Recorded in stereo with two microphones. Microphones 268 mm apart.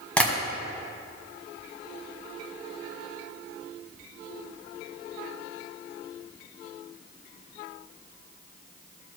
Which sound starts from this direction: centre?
Tapping, at 0.2 s.